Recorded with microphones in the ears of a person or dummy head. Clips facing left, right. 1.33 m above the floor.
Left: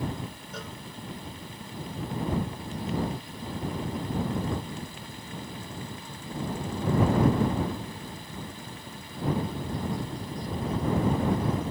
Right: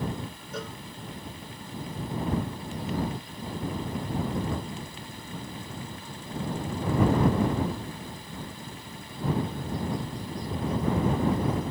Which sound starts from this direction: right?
A cowbell, at 0.5 s.